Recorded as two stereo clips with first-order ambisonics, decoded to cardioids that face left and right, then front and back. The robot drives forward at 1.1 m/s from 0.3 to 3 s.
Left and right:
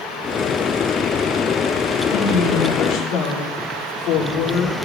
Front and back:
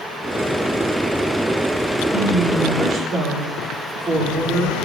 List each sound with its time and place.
2.1 s a woman speaking: 105° left, 3.5 m; by 4.8 s 120° left, 3.5 m